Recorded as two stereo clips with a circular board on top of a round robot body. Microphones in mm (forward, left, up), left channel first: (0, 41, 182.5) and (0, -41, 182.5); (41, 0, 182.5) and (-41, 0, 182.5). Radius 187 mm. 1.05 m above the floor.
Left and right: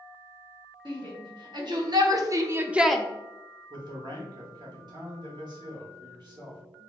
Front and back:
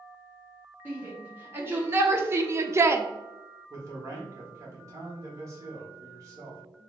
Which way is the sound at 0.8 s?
115° right.